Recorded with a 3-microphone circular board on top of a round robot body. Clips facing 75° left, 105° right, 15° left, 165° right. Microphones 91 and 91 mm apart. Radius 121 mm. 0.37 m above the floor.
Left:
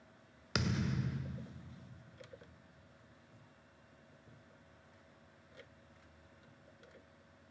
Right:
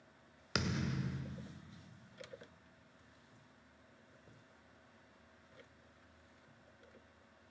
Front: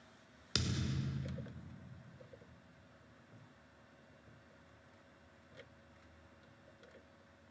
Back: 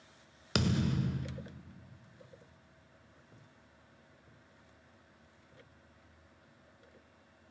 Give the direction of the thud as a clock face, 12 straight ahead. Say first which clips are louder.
Left 2 dB, back 9 dB; 6 o'clock.